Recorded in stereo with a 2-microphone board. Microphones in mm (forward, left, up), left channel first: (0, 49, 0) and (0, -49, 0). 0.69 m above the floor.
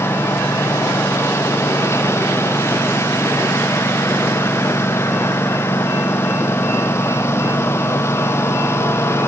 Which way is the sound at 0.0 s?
25° left (ahead or behind).